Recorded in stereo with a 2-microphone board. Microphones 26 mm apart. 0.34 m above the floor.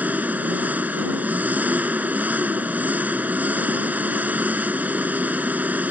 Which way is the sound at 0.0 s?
75° right (ahead or behind).